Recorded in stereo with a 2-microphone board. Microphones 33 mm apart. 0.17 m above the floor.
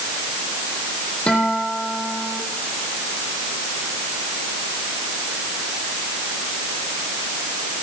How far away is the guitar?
About 6.5 m.